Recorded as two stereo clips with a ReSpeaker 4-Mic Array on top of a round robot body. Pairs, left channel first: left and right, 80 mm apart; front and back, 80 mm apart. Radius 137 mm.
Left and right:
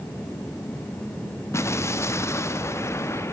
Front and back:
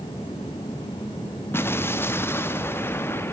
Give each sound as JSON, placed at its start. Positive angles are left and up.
{"t": 1.5, "sound": "an explosion", "azimuth_deg": 50, "distance_m": 0.9}